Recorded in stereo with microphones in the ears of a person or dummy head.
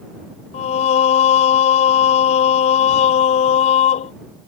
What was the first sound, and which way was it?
Singing, 40° left (ahead or behind).